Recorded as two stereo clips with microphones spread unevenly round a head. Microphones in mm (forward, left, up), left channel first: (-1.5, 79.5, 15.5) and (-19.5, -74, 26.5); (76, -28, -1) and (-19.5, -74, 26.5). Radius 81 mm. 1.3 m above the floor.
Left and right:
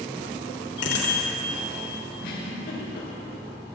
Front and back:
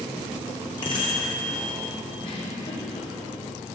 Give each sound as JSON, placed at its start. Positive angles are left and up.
{"t": 0.8, "sound": "a bicycle bell", "azimuth_deg": 90, "distance_m": 3.5}
{"t": 2.2, "sound": "a giggle", "azimuth_deg": 75, "distance_m": 4.5}